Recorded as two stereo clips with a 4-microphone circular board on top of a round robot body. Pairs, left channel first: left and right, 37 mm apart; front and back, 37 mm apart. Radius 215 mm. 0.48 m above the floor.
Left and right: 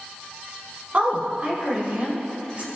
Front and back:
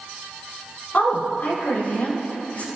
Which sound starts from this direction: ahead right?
A woman speaking, at 0.9 s.